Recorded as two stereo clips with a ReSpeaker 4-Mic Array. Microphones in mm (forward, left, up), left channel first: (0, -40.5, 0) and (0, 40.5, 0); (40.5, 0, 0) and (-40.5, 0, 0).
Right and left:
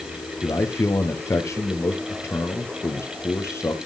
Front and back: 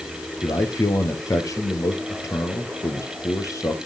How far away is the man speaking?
About 3 m.